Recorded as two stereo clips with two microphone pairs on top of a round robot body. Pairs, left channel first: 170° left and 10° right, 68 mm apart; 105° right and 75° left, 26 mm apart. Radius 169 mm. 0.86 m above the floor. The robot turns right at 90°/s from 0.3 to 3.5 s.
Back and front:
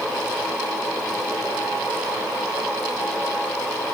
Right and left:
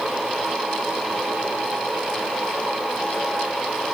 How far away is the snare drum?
No snare drum in this recording.